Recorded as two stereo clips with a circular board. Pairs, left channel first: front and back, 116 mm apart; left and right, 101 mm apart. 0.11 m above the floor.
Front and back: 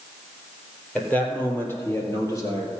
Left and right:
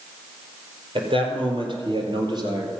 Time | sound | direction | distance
0.9 | a man speaking | 80° right | 3.5 m